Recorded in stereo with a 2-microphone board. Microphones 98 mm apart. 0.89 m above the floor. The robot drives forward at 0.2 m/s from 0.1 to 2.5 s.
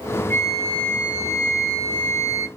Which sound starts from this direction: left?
A flute, at 0.3 s.